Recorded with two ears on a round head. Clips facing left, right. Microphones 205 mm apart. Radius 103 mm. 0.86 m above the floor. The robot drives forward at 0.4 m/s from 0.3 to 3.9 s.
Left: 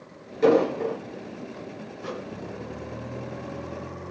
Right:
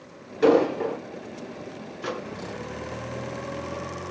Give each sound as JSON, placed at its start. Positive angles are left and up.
{"t": 0.4, "sound": "an explosion", "side_deg": -15, "distance_m": 3.5}
{"t": 2.0, "sound": "a microwave", "side_deg": -75, "distance_m": 1.0}